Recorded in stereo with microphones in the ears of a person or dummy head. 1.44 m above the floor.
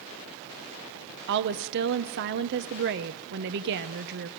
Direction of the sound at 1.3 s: 60° right (ahead or behind).